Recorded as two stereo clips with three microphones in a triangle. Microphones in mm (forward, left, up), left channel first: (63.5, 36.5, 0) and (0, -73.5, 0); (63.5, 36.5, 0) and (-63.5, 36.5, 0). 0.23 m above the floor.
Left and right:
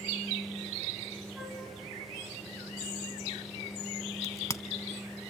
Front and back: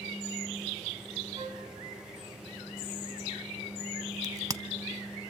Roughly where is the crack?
Behind left.